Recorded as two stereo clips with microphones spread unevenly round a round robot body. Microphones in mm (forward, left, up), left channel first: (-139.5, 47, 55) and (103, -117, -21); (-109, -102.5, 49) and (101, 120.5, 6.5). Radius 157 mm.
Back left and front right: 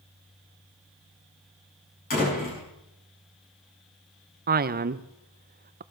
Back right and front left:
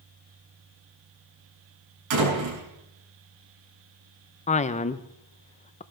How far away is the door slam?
About 6.5 m.